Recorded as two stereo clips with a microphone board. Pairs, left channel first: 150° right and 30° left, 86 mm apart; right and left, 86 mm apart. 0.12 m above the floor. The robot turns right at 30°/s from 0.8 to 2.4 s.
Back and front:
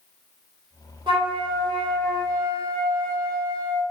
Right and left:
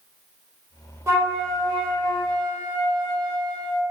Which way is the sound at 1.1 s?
35° left.